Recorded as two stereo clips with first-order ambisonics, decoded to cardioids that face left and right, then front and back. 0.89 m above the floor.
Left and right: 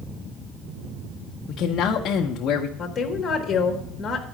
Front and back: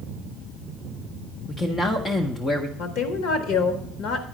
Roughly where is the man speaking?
Ahead left.